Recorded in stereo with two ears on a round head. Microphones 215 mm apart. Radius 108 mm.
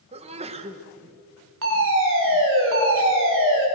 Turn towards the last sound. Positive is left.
turn(degrees=-55)  # may be behind; listen again after turning